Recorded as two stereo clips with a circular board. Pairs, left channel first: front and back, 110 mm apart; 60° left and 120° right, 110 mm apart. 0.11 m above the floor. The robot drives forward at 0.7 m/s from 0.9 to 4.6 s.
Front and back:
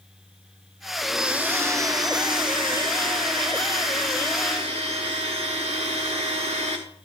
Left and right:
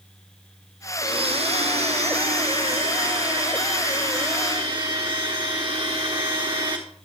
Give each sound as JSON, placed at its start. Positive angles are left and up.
{"t": 1.0, "sound": "a blender", "azimuth_deg": -85, "distance_m": 0.9}